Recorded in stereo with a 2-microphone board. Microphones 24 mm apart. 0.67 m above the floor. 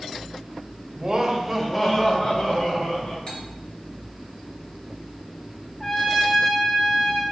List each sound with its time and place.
0.9 s laughter: 30° right (ahead or behind), 0.7 m; by 3.2 s 50° left (ahead or behind), 1.3 m
3.3 s cutlery clinking: 50° left (ahead or behind), 1.2 m
5.8 s a trumpet: 30° left (ahead or behind), 1.0 m